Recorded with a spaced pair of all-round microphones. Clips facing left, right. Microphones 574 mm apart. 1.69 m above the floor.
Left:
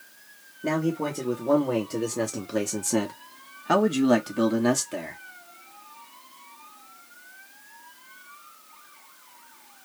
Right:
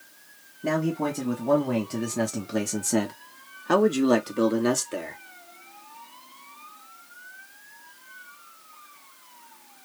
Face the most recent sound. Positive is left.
turn(degrees=15)  # may be behind; listen again after turning